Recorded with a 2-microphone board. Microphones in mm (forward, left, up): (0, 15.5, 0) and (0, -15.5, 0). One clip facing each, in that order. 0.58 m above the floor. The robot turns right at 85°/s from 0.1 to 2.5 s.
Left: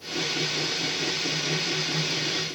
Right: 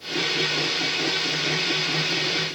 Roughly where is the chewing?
No chewing in this recording.